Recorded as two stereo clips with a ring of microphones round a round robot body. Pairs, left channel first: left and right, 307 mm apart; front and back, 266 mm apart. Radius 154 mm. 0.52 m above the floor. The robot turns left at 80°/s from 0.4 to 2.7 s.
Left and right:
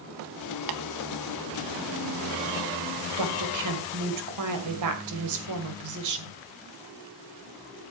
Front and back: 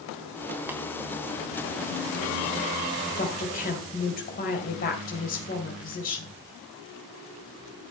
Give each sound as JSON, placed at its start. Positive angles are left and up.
{"t": 0.7, "sound": "tapping", "azimuth_deg": -95, "distance_m": 1.2}
{"t": 3.2, "sound": "a woman speaking", "azimuth_deg": -60, "distance_m": 2.0}